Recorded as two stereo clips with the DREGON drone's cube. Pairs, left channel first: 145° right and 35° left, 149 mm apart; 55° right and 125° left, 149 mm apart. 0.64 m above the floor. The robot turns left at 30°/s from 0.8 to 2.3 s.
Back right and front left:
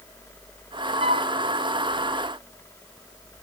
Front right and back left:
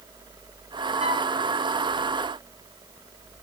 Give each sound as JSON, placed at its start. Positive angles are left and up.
{"t": 1.0, "sound": "a flute", "azimuth_deg": 85, "distance_m": 3.0}